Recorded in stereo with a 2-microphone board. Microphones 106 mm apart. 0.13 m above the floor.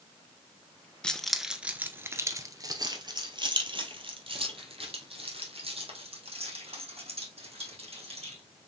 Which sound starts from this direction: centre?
Keys jangling, at 1.0 s.